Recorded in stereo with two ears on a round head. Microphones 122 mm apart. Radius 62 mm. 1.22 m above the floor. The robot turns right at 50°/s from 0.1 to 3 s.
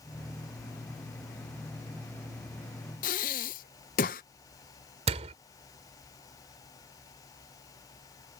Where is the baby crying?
No baby crying in this recording.